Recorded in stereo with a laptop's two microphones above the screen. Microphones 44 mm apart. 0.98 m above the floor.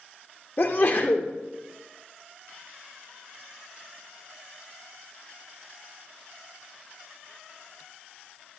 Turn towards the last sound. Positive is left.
turn(degrees=50)  # may be behind; listen again after turning